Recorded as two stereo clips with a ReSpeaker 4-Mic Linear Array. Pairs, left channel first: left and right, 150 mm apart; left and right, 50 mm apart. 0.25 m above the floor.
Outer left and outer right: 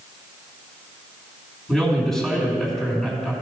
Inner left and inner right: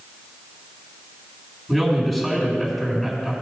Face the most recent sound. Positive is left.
turn(degrees=5)  # may be behind; listen again after turning